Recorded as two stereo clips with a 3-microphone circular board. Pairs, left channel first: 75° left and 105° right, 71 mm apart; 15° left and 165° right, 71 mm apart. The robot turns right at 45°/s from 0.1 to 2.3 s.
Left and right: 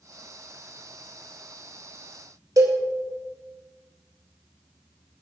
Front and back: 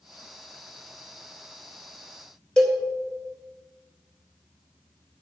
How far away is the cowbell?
About 2.5 m.